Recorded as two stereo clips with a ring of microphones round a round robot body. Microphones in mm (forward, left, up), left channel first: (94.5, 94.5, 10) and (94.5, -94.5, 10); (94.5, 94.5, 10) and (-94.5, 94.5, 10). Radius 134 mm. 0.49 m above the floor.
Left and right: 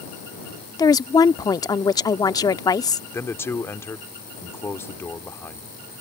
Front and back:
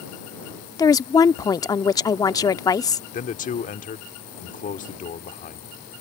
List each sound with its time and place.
0.8 s a woman speaking: 45° left
3.1 s a man speaking: 20° left